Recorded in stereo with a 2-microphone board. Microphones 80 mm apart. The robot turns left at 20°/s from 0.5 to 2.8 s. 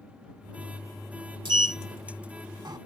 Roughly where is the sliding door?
Right.